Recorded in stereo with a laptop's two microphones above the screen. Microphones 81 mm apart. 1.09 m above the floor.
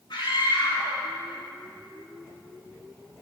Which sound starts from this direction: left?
A scream, at 0.1 s.